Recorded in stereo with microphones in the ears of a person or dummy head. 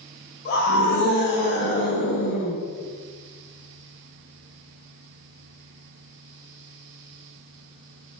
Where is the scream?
40° left (ahead or behind), 1.9 m.